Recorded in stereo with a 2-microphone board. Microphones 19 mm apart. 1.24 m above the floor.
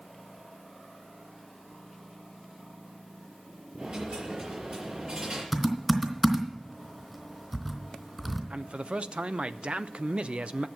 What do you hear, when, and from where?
3.8 s a dropped coin: 75° right (ahead or behind), 6 m
5.5 s typing on a keyboard: 15° right (ahead or behind), 2.5 m
8.5 s a man speaking: 75° right (ahead or behind), 0.6 m